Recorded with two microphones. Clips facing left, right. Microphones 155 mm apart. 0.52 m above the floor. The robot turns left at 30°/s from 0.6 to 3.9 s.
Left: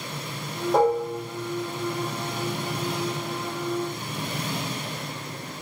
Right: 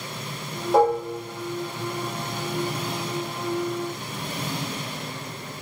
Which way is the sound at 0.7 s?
Centre (ahead or behind).